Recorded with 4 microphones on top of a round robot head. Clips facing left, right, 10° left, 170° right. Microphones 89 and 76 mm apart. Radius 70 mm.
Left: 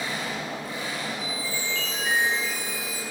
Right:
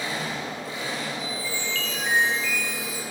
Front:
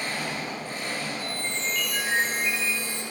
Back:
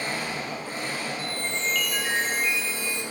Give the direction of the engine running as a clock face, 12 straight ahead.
3 o'clock.